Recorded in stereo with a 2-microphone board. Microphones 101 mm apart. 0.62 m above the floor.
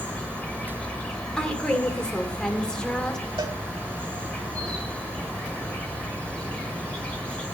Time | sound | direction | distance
0.0 | an insect | 15° left (ahead or behind) | 2.5 m
1.4 | a woman speaking | 10° left (ahead or behind) | 2 m
3.4 | a cowbell | 55° right (ahead or behind) | 1.9 m